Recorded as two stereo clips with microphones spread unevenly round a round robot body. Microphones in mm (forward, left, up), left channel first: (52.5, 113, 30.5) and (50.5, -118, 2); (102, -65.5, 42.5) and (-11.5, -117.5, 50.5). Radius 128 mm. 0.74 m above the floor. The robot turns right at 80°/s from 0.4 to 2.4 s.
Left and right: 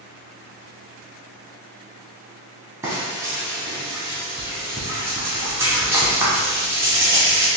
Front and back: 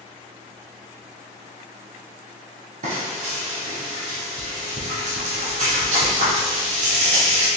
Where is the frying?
175° right, 0.9 m.